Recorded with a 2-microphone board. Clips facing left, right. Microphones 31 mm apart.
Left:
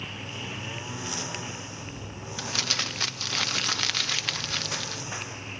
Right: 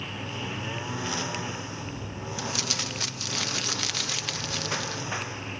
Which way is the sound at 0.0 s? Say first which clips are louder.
Right 2 dB; 15° right (ahead or behind).